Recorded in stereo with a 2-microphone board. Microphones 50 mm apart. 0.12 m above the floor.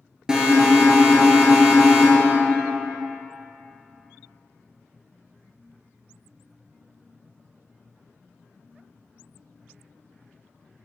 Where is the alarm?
15° right (ahead or behind), 1.2 m.